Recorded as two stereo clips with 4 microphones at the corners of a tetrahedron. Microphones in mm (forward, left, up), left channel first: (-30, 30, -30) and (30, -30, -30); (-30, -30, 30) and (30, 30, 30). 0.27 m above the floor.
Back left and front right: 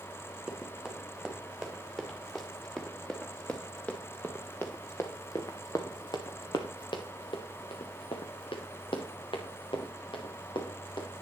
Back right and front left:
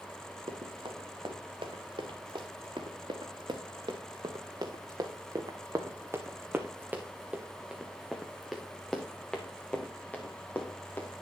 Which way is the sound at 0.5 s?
35° left.